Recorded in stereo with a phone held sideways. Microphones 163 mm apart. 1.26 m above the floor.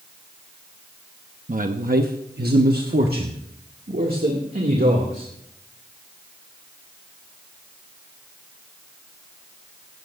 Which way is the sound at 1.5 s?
55° right (ahead or behind).